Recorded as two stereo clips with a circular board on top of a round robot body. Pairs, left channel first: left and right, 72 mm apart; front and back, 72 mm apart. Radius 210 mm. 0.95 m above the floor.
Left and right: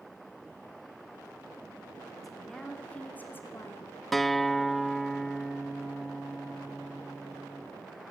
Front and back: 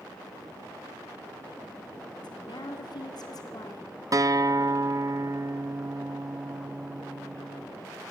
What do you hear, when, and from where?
2.2 s a woman speaking: straight ahead, 4 m; by 4.0 s 40° left, 4 m
4.1 s a guitar: 175° left, 0.9 m